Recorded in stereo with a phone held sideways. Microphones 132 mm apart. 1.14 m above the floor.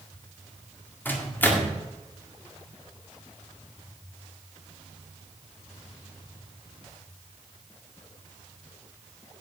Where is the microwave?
15° left (ahead or behind), 1.6 m.